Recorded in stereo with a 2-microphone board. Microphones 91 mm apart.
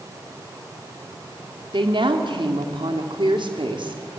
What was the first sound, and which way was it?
A woman speaking, 65° right (ahead or behind).